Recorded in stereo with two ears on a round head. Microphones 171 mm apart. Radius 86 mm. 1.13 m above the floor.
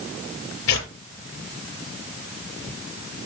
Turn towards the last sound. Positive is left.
turn(degrees=75)  # may be behind; listen again after turning